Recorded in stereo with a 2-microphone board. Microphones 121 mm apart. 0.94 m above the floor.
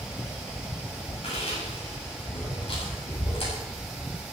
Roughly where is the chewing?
Left.